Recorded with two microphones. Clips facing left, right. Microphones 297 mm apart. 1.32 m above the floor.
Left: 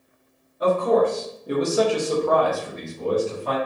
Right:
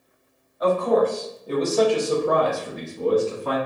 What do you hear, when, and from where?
0.6 s a man speaking: 35° left (ahead or behind), 1.1 m; by 3.6 s 60° right (ahead or behind), 0.8 m